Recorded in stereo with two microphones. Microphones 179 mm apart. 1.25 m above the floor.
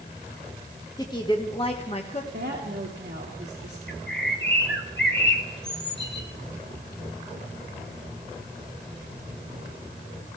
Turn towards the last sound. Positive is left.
turn(degrees=75)  # may be behind; listen again after turning